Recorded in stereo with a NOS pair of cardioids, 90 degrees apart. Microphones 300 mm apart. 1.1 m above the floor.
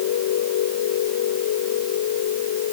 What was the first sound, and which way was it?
A machine running, 70° left.